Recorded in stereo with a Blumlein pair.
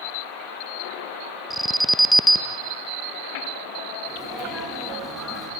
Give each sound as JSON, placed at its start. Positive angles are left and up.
{"t": 1.5, "sound": "an alarm", "azimuth_deg": -5, "distance_m": 0.9}
{"t": 4.1, "sound": "a sneeze", "azimuth_deg": 0, "distance_m": 10.0}